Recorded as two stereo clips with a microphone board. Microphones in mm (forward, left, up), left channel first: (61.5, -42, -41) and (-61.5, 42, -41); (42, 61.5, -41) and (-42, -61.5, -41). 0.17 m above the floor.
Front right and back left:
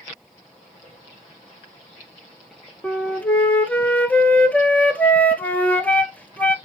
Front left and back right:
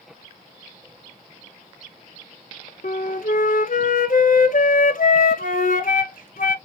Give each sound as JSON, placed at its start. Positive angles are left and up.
{"t": 2.8, "sound": "a flute", "azimuth_deg": 45, "distance_m": 0.7}